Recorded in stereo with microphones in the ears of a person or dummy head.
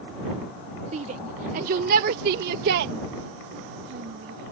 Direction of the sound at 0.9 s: 35° right (ahead or behind).